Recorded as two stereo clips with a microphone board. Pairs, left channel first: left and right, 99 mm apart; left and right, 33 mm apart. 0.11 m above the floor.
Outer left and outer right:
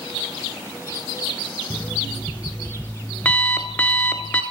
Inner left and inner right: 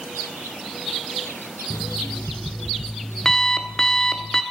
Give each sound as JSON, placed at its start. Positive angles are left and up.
{"t": 1.7, "sound": "an alarm clock", "side_deg": 15, "distance_m": 0.5}